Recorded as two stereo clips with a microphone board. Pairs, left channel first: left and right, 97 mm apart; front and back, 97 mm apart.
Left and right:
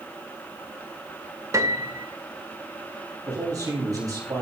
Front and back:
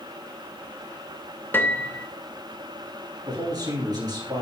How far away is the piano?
About 0.6 m.